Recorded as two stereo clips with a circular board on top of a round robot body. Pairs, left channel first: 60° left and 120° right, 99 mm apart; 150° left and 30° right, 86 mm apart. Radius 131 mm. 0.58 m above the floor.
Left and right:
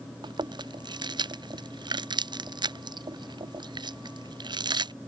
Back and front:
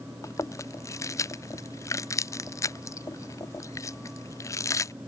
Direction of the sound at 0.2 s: 160° right.